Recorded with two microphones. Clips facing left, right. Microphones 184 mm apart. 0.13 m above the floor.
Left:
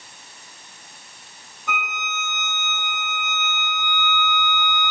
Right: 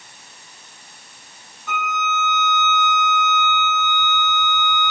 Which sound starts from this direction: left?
A violin, at 1.7 s.